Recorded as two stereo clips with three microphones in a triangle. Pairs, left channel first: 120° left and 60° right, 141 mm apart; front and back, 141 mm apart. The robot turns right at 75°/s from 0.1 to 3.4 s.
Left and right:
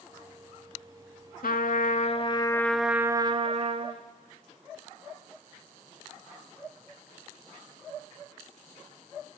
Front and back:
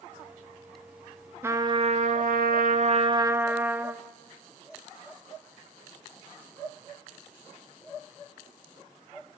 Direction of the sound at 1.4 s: 110° left.